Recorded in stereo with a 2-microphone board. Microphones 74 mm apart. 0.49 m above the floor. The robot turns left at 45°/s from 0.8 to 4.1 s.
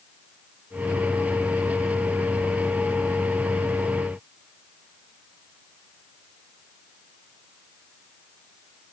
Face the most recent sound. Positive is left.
No sound to turn to.